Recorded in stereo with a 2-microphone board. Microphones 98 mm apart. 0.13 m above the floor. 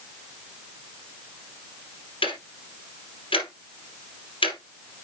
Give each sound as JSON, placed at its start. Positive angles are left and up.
{"t": 2.2, "sound": "ticking", "side_deg": 65, "distance_m": 3.0}